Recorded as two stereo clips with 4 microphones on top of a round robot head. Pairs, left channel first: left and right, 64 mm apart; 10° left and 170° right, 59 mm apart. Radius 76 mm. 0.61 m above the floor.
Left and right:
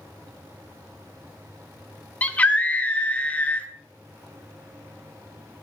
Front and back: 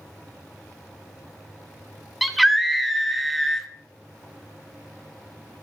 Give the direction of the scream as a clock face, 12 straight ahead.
9 o'clock.